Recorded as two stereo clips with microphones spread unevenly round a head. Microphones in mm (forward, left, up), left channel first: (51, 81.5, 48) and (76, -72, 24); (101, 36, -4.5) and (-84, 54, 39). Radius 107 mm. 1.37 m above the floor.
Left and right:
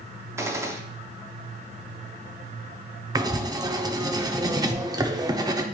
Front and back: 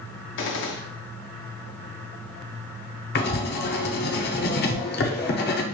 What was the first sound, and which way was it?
A gunshot, 10° right.